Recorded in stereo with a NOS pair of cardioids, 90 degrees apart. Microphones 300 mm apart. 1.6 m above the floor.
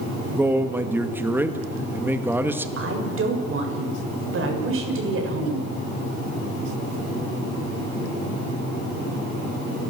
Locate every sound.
0.4 s a man speaking: 5° right, 2 m
2.8 s a woman speaking: 50° right, 7.5 m